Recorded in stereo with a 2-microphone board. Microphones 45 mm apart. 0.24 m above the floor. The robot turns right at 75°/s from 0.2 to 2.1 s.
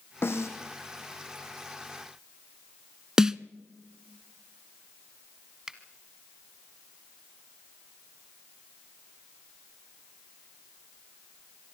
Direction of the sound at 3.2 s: 15° right (ahead or behind).